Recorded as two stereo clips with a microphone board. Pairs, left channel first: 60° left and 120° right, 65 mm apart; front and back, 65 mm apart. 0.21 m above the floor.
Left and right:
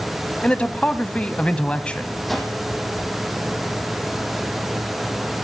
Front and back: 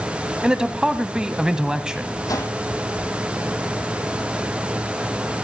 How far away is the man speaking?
About 1.1 m.